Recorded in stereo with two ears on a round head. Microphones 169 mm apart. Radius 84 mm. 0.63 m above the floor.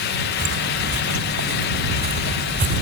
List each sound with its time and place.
0.4 s footsteps: 75° right (ahead or behind); by 2.8 s 45° right (ahead or behind)